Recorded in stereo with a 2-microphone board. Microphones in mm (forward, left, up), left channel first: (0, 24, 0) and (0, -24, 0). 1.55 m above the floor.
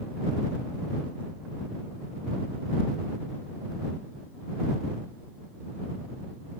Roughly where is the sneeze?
No sneeze in this recording.